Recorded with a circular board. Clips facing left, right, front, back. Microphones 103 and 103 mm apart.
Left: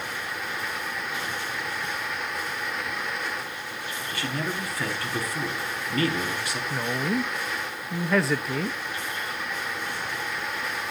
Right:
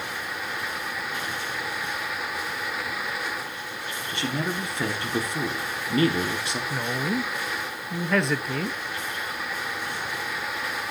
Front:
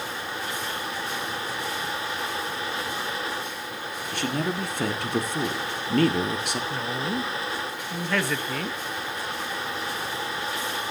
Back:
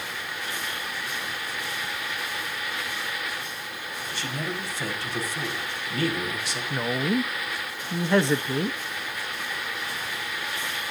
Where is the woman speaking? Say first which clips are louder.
Left 1 dB, back 3 dB; 175° left, 0.5 m.